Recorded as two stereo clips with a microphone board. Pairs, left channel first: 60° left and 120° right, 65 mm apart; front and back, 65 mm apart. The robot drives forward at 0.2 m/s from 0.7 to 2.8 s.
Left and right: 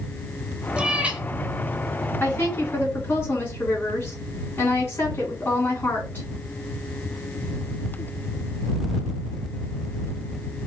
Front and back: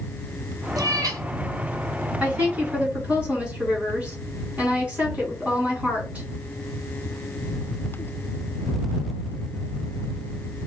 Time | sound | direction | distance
0.8 | a cat meowing | 165° left | 0.5 m
2.2 | a woman speaking | 110° left | 2.5 m